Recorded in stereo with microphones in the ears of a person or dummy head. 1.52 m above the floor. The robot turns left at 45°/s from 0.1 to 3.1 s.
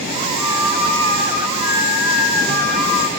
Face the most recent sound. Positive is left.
turn(degrees=60)